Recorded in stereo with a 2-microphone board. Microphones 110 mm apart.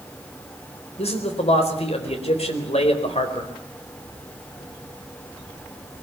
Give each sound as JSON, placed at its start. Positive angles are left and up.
{"t": 1.0, "sound": "a man speaking", "side_deg": 70, "distance_m": 4.0}